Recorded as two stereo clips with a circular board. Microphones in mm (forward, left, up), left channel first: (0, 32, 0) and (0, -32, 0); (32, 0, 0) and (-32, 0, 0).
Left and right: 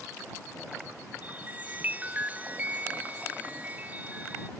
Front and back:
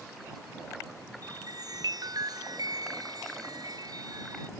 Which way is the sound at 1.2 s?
155° right.